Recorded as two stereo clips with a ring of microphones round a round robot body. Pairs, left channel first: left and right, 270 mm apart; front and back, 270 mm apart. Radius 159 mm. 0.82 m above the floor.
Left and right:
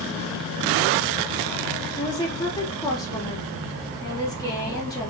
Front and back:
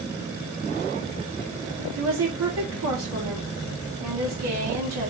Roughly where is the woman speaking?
Behind.